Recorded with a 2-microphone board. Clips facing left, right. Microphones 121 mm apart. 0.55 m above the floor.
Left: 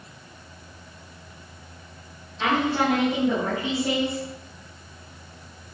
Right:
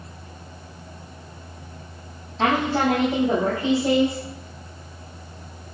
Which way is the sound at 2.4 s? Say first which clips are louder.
Right 2 dB; 45° right (ahead or behind).